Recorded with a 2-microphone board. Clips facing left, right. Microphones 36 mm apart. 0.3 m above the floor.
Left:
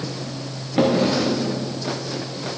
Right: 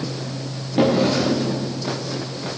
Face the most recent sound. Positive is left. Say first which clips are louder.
# right 1 dB
turn(degrees=15)  # may be behind; listen again after turning